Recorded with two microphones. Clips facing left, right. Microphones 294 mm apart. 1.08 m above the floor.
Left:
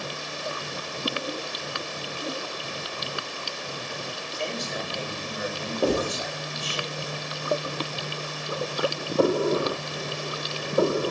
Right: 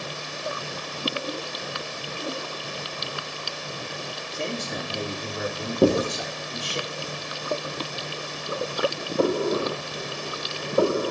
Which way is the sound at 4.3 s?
55° right (ahead or behind).